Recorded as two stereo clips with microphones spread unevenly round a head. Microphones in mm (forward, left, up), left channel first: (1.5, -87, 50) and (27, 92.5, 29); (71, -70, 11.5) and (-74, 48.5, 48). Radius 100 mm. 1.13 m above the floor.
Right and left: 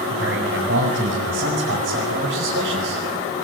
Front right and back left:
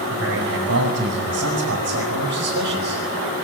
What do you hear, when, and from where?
0.1 s a man speaking: 115° left, 6.5 m